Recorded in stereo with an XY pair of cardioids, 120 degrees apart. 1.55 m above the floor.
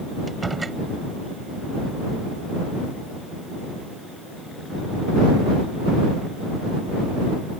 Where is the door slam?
20° right.